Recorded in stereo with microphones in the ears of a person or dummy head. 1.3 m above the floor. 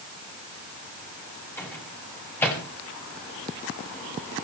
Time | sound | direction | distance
1.6 | a microwave | 10° left (ahead or behind) | 6 m